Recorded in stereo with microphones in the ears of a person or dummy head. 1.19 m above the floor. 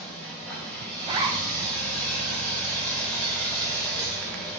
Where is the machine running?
5° left (ahead or behind), 1.4 m.